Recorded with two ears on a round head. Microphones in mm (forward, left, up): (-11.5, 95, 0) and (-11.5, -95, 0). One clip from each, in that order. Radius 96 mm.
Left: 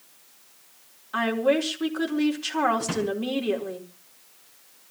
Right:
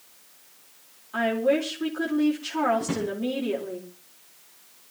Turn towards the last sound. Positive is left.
turn(degrees=35)  # may be behind; listen again after turning